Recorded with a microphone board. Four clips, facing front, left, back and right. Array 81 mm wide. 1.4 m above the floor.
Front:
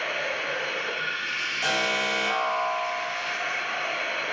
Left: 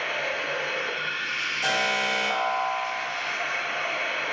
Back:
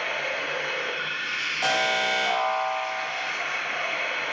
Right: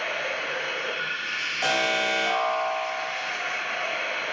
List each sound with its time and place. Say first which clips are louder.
0.0 s running water: even, even; 160° left, 1.4 m
1.6 s an alarm: right 1 dB, back 3 dB; 115° right, 1.6 m